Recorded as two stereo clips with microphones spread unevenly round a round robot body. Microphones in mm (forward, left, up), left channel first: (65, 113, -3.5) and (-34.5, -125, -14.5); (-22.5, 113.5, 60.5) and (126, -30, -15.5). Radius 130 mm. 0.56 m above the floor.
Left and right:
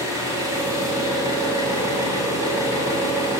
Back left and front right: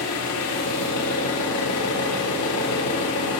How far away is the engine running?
About 1.1 m.